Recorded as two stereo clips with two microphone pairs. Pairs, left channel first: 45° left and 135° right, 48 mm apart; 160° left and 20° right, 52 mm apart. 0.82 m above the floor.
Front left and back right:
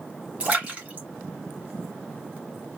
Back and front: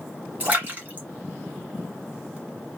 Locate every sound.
0.4 s a splash: 80° right, 1.7 m